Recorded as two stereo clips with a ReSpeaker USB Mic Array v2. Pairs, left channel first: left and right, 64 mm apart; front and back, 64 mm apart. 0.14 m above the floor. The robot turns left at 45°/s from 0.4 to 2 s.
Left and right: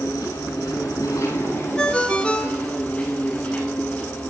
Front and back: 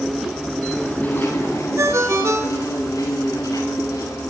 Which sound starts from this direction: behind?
A ringtone, at 1.8 s.